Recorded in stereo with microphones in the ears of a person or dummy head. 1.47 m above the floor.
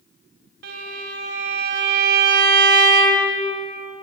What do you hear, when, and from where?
0.6 s a violin: 65° right (ahead or behind), 1.9 m